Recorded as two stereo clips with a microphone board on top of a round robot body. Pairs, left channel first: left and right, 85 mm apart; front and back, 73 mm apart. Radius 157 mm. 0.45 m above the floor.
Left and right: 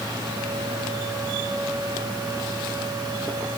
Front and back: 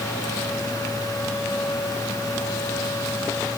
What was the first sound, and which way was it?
Only background noise.